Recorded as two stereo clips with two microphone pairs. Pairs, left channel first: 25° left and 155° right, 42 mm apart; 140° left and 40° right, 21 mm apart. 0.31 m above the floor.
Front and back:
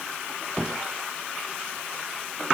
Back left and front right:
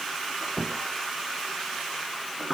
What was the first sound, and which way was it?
Only background noise.